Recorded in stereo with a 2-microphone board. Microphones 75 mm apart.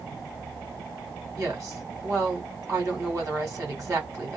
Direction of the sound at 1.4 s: 45° right (ahead or behind).